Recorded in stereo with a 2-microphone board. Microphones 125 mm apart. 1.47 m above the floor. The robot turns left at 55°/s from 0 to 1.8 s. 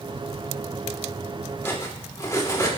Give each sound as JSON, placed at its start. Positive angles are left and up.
{"t": 1.6, "sound": "cutlery clinking", "side_deg": 20, "distance_m": 3.0}